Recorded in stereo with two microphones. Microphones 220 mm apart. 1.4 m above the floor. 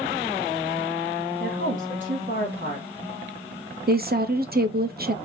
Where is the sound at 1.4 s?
45° right (ahead or behind), 2 m.